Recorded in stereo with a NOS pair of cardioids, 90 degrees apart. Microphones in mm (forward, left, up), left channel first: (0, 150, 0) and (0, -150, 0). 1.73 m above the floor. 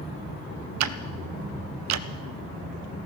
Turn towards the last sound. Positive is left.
turn(degrees=-65)